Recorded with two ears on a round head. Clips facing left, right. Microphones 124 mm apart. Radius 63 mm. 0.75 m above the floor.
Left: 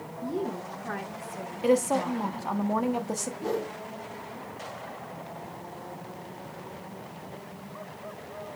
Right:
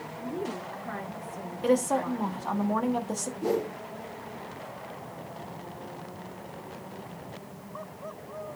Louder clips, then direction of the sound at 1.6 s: Left 1 dB; 5° left (ahead or behind).